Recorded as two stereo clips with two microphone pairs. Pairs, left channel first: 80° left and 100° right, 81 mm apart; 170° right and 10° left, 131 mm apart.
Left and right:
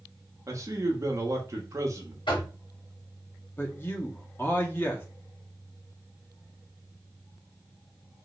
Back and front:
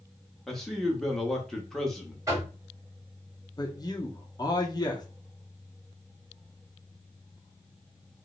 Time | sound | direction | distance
0.5 | a man speaking | 85° right | 0.7 m
2.3 | knocking | 75° left | 2 m
3.6 | a man speaking | 140° left | 0.9 m